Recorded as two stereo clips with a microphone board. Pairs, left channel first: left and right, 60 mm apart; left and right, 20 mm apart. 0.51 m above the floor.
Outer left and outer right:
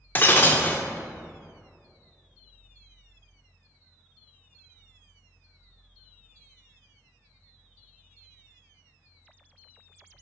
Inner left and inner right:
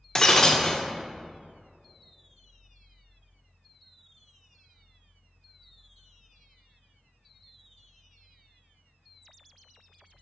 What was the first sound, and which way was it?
Breaking glass, 35° left (ahead or behind).